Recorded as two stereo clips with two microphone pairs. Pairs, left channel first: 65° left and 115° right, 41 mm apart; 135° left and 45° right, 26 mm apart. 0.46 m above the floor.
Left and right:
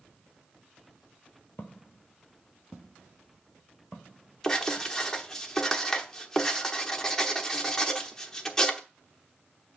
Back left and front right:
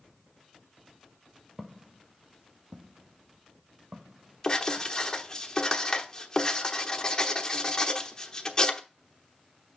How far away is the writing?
About 1.0 m.